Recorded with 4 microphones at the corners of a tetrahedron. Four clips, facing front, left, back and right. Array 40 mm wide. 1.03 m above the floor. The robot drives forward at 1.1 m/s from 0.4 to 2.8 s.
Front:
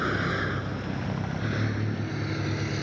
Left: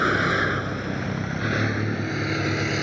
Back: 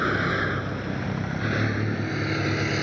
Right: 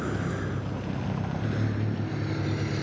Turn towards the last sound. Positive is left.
turn(degrees=130)